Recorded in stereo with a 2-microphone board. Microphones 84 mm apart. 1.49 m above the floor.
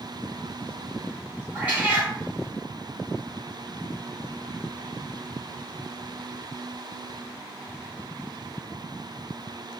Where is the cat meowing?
15° right (ahead or behind), 1.6 m.